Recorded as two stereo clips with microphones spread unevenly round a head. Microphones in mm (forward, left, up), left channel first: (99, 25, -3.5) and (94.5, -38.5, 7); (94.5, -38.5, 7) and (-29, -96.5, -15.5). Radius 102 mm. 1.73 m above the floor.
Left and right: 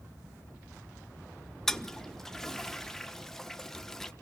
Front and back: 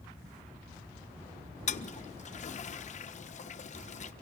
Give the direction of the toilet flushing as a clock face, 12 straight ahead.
12 o'clock.